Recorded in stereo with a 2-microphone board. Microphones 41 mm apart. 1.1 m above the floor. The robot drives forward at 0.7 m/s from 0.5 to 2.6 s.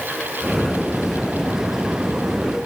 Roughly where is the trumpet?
I don't hear a trumpet.